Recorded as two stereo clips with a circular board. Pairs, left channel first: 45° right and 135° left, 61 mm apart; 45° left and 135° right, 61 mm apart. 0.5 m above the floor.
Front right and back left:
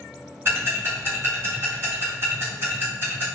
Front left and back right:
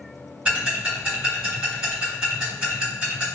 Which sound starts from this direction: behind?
Ticking, at 0.5 s.